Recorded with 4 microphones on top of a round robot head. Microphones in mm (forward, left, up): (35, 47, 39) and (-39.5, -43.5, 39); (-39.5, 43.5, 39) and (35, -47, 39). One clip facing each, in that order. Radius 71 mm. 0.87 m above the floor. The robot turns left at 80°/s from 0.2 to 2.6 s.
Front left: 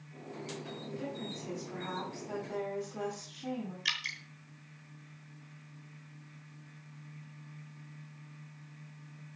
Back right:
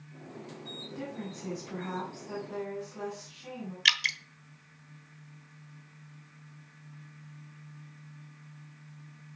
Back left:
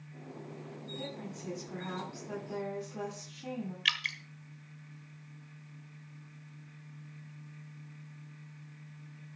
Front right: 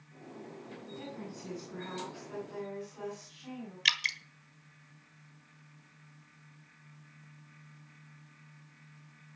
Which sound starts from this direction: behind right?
A woman speaking, at 0.9 s.